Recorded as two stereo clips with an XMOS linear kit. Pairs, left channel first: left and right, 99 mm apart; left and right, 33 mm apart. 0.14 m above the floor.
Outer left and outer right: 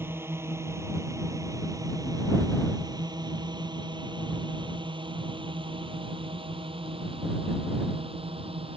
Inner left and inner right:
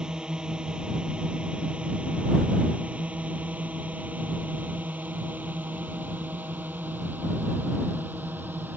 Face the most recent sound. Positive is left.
turn(degrees=-70)  # may be behind; listen again after turning